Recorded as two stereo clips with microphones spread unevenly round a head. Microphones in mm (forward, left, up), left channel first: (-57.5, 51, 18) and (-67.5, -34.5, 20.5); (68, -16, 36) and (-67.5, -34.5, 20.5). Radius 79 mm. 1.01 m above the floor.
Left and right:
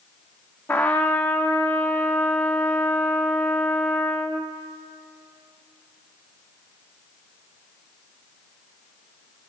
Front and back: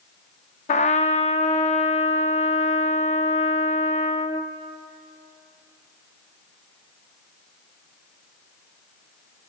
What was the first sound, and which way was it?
A trumpet, 5° left.